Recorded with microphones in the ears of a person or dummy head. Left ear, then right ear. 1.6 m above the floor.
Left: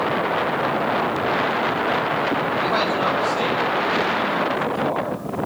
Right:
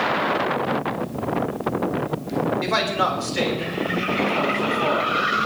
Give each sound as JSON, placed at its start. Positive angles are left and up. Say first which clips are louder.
{"t": 2.6, "sound": "a man speaking", "louder": "even", "side_deg": -20, "distance_m": 5.0}